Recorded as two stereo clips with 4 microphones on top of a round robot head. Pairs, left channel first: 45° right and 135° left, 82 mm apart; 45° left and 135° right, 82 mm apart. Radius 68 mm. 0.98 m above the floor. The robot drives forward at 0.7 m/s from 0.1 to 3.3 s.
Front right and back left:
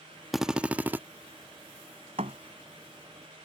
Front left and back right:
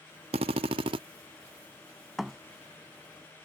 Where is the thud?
135° left; by 2.4 s 140° left.